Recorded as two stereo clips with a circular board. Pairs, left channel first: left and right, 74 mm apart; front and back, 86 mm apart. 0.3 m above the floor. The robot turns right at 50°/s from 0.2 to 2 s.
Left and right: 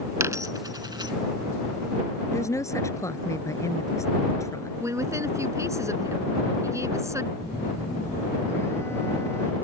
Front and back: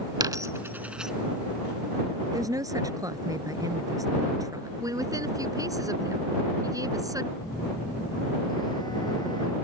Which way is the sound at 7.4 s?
35° left.